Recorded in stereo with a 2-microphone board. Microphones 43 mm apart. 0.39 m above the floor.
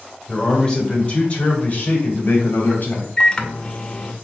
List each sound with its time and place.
0.3 s a man speaking: 10° left (ahead or behind), 1.4 m; by 3.1 s 55° left (ahead or behind), 2.5 m
3.2 s a microwave: 20° left (ahead or behind), 0.6 m